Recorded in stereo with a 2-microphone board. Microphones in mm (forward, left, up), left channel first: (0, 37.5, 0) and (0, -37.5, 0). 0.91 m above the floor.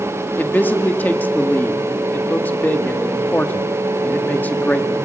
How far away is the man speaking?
About 1.6 m.